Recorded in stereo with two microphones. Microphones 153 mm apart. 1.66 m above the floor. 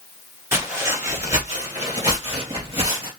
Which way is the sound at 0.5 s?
15° right (ahead or behind).